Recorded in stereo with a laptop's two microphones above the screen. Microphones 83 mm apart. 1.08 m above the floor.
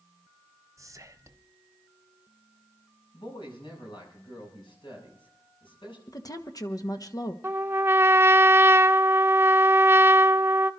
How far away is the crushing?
I don't hear crushing.